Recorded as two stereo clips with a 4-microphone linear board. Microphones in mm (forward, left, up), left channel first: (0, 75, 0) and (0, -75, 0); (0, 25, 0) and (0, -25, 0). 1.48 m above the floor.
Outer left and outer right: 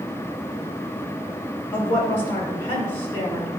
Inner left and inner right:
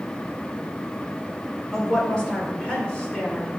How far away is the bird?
I don't hear a bird.